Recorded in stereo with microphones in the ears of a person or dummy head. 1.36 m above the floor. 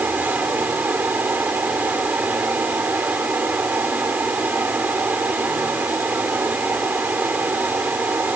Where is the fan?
10° right (ahead or behind).